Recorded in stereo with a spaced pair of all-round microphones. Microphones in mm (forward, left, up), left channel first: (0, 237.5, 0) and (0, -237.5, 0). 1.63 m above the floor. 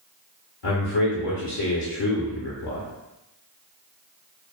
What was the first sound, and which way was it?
A man speaking, 65° left (ahead or behind).